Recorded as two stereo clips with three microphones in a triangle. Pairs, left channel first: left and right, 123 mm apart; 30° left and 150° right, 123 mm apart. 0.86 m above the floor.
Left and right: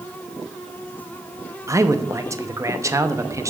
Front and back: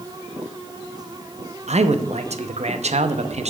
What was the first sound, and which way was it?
A man speaking, 155° right.